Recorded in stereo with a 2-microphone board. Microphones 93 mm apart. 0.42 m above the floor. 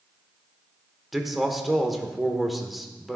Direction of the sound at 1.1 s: Centre (ahead or behind).